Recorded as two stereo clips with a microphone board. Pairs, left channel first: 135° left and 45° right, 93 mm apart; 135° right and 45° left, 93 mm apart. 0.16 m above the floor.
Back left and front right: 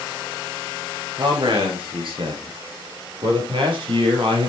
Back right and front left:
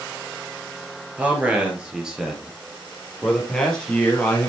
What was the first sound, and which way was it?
A man speaking, 25° right.